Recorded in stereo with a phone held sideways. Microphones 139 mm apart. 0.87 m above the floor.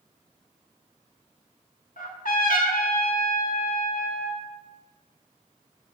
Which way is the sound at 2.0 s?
75° left (ahead or behind).